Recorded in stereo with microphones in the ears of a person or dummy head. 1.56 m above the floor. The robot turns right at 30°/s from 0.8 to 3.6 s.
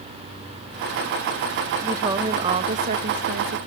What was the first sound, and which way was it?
A woman speaking, 165° right.